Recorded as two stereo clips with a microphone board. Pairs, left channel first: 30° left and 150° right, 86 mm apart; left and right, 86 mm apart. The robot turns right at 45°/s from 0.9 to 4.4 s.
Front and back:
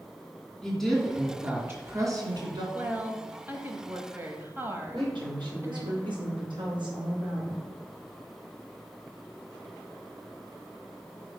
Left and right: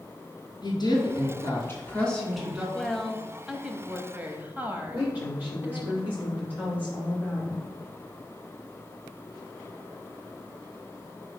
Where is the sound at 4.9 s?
160° right, 3 m.